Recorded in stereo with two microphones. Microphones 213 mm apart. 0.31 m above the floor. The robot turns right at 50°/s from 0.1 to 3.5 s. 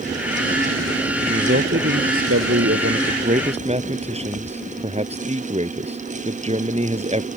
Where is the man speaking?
145° right; by 7.3 s 30° right.